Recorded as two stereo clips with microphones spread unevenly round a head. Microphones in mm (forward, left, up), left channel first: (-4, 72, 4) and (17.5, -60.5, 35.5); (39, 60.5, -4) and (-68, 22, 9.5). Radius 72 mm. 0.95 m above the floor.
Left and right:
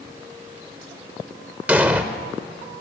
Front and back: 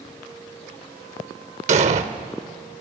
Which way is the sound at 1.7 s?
155° right.